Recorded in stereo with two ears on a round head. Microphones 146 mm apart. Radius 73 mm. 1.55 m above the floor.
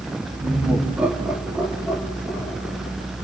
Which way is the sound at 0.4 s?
15° right (ahead or behind).